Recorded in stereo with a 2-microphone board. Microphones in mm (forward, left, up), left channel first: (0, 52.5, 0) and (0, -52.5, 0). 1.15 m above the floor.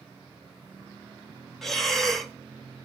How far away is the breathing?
About 0.7 m.